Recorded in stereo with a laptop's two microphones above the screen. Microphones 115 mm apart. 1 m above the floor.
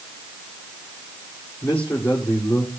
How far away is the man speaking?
About 2.5 m.